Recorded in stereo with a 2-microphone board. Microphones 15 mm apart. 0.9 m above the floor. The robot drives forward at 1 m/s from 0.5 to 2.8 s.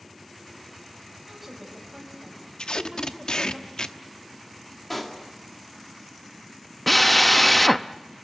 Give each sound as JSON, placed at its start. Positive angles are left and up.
{"t": 1.3, "sound": "a woman speaking", "side_deg": -10, "distance_m": 6.0}
{"t": 2.6, "sound": "tape being pulled", "side_deg": 70, "distance_m": 0.9}
{"t": 4.9, "sound": "a pop", "side_deg": 10, "distance_m": 2.5}
{"t": 6.9, "sound": "a drill", "side_deg": 10, "distance_m": 0.6}